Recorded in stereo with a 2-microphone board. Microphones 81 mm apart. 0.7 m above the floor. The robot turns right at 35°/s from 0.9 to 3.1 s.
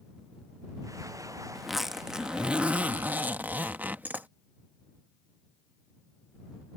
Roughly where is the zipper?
Centre.